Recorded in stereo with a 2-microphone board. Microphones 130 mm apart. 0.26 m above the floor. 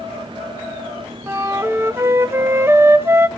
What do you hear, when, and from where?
1.3 s a flute: 20° right (ahead or behind), 0.6 m